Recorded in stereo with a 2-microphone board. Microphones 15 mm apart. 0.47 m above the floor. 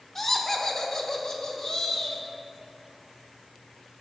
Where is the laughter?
20° left (ahead or behind), 0.8 m; by 2.2 s 40° left (ahead or behind), 2.5 m.